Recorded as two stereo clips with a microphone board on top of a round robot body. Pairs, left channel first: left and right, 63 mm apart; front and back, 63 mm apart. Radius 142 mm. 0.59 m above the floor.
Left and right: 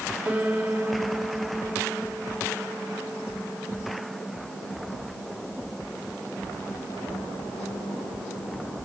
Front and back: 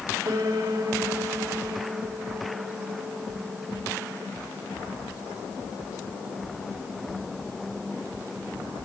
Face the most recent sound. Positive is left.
turn(degrees=-165)